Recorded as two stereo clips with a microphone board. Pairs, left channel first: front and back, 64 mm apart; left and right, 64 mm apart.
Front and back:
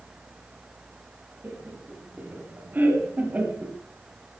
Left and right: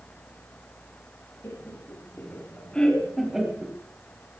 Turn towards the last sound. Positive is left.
turn(degrees=-130)